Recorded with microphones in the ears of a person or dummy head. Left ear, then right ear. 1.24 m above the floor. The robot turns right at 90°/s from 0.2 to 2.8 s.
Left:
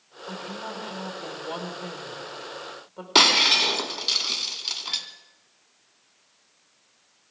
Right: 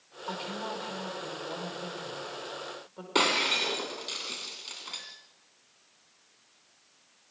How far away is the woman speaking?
About 5 m.